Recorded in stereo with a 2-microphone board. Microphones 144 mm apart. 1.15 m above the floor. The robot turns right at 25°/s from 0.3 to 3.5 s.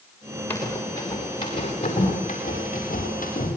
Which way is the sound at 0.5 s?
15° left (ahead or behind).